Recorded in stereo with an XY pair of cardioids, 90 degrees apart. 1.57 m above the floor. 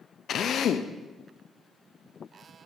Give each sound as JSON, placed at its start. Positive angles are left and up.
{"t": 0.3, "sound": "a drill", "azimuth_deg": 70, "distance_m": 0.7}